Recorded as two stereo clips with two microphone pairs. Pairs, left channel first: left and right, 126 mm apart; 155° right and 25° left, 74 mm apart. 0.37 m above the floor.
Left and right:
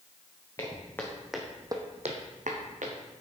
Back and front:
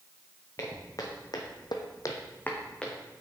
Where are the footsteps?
160° left, 2.0 m; by 3.0 s 75° right, 1.8 m.